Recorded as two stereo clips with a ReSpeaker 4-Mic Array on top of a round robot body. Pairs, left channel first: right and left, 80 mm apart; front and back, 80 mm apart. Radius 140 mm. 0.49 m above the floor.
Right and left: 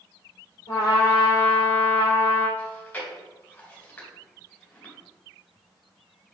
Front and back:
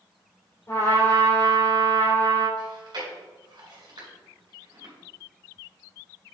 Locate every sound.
0.7 s a trumpet: 55° right, 3 m
2.6 s chewing: 160° right, 3 m